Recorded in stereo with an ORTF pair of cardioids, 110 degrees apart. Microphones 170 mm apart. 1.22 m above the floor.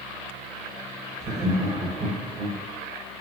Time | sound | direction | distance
1.2 | laughter | 40° right | 1.0 m